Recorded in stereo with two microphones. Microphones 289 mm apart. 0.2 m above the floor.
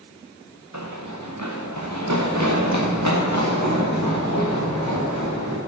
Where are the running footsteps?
75° right (ahead or behind), 1.7 m.